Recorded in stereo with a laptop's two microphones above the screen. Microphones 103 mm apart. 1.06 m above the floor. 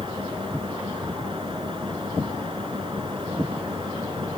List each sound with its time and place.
0.0 s a fan: 55° right (ahead or behind)